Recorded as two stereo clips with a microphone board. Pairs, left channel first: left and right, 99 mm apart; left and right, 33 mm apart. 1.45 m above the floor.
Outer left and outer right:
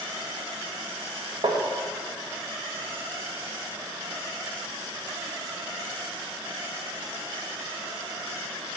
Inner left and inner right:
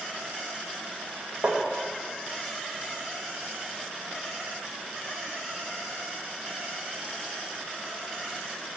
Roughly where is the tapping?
Right.